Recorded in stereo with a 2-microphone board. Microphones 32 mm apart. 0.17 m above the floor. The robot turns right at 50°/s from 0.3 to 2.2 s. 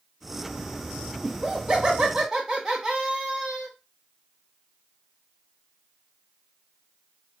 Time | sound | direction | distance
1.2 | laughter | 10° right (ahead or behind) | 1.1 m